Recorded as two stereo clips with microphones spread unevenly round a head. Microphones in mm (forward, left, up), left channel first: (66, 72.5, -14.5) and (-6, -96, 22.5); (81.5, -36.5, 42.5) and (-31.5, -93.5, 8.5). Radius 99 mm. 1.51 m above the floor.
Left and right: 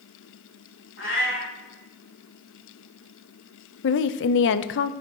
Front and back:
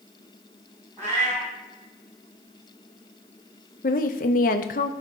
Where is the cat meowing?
120° left, 3 m.